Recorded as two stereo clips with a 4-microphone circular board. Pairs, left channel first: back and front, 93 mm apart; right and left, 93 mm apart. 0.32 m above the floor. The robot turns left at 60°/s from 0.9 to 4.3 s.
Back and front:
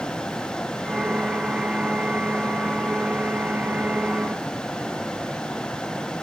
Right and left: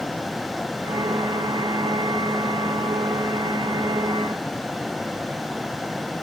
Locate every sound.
Only background noise.